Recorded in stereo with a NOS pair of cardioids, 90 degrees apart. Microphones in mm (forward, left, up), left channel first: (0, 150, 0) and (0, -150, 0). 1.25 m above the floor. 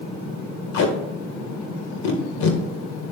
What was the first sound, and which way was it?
Tape being pulled, 70° left.